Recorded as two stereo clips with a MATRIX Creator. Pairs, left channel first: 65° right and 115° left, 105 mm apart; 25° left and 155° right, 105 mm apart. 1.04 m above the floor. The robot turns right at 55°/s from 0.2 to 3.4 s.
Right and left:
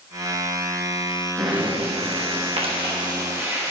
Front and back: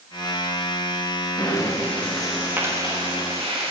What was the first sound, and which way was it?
Breathing, 65° left.